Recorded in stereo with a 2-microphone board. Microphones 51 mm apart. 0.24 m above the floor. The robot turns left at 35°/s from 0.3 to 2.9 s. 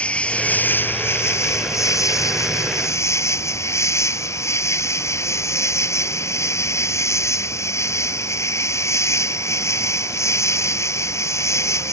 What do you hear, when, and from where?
0.0 s an insect: 155° left; by 11.9 s 65° left